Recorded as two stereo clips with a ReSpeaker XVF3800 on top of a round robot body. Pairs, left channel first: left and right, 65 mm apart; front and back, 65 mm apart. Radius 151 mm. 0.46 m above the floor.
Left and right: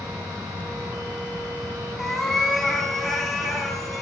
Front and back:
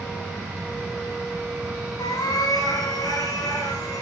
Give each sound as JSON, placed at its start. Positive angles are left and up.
{"t": 2.0, "sound": "a cat meowing", "azimuth_deg": 0, "distance_m": 2.5}